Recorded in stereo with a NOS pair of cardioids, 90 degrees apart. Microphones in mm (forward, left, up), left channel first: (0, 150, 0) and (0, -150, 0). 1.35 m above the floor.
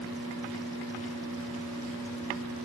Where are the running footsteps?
No running footsteps in this recording.